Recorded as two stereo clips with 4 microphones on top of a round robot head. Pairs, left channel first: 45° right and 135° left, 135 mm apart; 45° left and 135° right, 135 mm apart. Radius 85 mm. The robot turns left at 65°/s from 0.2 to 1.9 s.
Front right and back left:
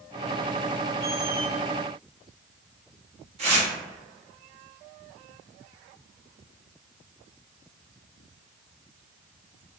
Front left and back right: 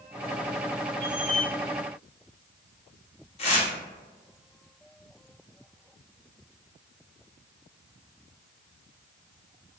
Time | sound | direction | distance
1.0 | a squeak | 130° left | 1.7 m
3.4 | tearing paper | 90° left | 1.2 m